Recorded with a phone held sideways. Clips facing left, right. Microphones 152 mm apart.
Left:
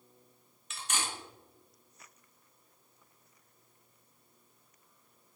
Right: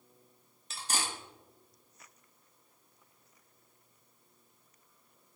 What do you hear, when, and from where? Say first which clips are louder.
0.7 s cutlery clinking: right 1 dB; 35° right (ahead or behind), 0.6 m